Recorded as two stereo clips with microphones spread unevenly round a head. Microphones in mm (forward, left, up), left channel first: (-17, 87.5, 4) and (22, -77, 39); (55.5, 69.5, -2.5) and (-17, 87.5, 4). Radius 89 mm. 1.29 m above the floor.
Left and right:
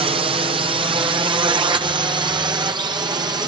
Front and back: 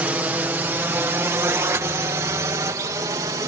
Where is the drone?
130° right; by 3.5 s 145° right.